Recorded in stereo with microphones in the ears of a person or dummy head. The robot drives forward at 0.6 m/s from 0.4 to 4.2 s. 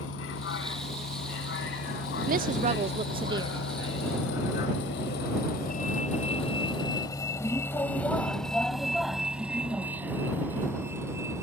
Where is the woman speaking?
50° right (ahead or behind); by 3.6 s 25° right (ahead or behind).